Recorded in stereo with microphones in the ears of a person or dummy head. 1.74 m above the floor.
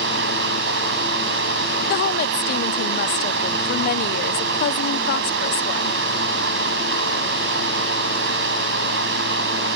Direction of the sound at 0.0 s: 65° right (ahead or behind).